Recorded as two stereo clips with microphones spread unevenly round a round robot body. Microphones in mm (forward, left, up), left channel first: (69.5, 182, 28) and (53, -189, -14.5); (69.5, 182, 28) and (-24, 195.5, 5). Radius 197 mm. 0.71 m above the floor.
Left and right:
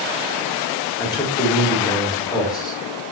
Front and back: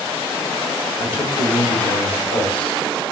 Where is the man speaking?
5° left, 1.8 m.